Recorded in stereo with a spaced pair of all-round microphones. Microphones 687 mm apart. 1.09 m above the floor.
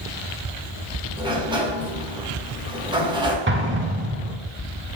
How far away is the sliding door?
About 1.0 m.